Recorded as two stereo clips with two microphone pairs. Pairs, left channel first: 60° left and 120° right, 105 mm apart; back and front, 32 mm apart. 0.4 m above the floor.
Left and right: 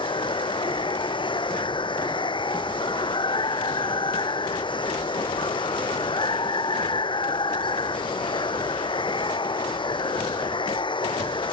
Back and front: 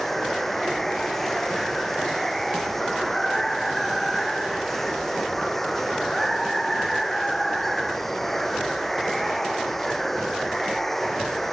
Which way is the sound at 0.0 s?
100° left.